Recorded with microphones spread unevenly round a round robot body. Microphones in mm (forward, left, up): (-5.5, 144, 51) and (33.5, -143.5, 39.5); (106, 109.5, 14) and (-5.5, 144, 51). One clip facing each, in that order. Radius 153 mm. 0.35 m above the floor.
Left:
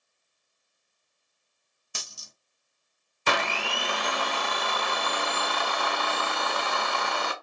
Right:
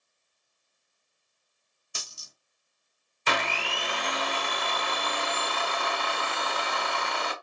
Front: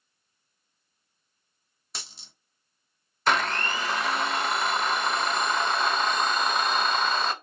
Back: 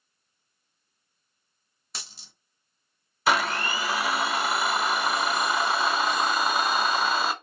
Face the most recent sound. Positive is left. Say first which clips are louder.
# left 2 dB, back 1 dB
turn(degrees=65)